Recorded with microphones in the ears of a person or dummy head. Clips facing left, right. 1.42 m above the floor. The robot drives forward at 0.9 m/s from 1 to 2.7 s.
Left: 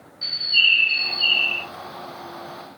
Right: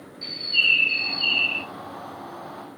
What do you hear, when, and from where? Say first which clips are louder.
0.2 s a bird: left 1 dB; 10° left (ahead or behind), 0.6 m; by 1.6 s 5° left (ahead or behind), 1.1 m